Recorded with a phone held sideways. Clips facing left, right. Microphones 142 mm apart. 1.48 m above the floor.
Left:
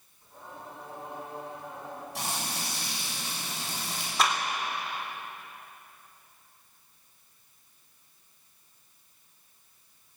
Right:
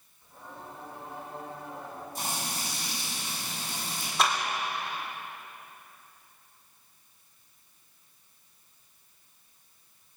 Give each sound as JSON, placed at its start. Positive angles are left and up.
{"t": 0.2, "sound": "singing", "side_deg": 15, "distance_m": 7.0}
{"t": 2.1, "sound": "frying", "side_deg": 85, "distance_m": 7.0}
{"t": 4.2, "sound": "a clap", "side_deg": 0, "distance_m": 3.5}